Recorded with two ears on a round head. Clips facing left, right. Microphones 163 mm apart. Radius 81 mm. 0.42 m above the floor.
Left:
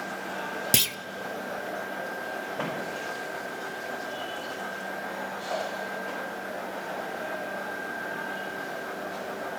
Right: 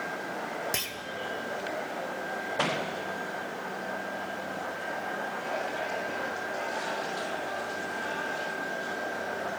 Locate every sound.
0.7 s a clunk: 40° left (ahead or behind), 0.5 m